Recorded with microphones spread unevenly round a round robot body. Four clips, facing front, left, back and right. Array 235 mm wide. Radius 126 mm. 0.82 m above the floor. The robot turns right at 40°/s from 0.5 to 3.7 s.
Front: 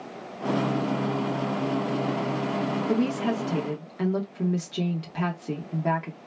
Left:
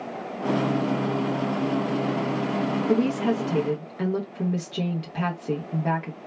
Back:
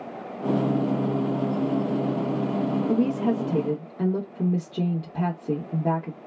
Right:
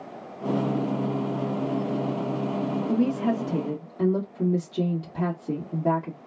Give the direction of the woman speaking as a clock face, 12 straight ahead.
8 o'clock.